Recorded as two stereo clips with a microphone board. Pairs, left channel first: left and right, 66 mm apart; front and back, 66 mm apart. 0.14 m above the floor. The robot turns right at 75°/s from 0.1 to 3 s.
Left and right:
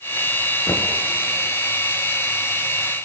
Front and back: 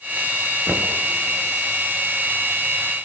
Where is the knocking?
105° left, 1.9 m; by 1.0 s 130° left, 1.9 m.